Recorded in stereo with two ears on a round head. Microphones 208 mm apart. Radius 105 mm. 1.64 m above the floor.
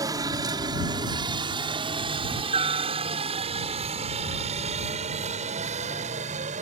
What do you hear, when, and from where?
0.0 s a helicopter: 15° right (ahead or behind); by 6.6 s 30° right (ahead or behind)